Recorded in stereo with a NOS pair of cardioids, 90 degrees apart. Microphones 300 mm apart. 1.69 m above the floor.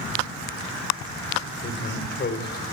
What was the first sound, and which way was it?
A man speaking, 40° left.